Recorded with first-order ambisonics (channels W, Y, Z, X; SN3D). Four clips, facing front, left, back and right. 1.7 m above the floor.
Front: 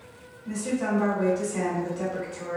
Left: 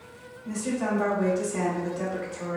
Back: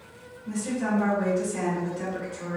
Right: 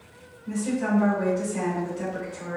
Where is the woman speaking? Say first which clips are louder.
Right 2 dB, even; 60° left, 1.5 m.